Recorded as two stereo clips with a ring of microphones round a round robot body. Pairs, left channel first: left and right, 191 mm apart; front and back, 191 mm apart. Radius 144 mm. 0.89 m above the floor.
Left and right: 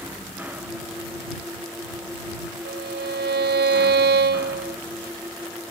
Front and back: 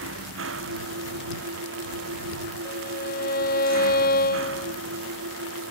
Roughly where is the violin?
Ahead right.